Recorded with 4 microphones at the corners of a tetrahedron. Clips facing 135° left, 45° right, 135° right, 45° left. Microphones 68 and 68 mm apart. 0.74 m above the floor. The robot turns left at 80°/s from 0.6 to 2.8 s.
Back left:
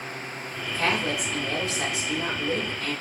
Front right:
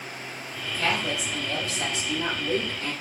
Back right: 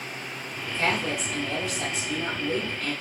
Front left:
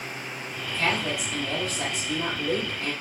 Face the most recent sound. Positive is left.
turn(degrees=-10)